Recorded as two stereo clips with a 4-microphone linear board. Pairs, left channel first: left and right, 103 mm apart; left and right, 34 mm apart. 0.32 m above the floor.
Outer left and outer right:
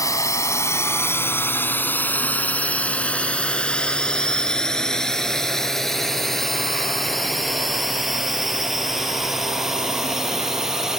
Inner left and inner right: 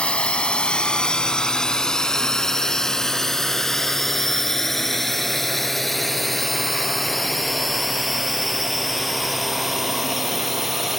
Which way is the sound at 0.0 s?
35° left (ahead or behind).